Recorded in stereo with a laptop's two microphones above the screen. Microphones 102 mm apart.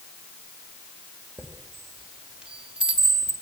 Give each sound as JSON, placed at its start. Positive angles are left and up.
{"t": 1.4, "sound": "a chime", "side_deg": -10, "distance_m": 2.5}